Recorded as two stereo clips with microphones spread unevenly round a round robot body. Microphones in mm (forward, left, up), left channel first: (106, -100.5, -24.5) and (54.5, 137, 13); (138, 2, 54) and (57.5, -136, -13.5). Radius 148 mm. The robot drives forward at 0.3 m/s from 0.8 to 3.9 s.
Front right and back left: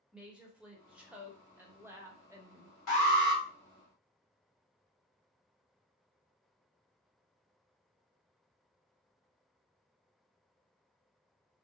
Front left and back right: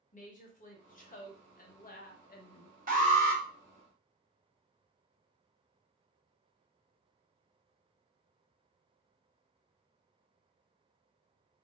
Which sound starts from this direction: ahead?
A woman speaking, at 0.1 s.